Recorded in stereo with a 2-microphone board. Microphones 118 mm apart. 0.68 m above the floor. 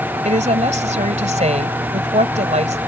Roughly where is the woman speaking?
Right.